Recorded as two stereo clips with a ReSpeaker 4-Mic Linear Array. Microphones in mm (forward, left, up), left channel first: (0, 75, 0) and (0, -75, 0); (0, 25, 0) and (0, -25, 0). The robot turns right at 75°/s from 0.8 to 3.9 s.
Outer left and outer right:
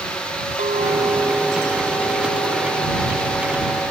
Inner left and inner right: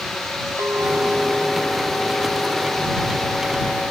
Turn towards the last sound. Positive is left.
turn(degrees=175)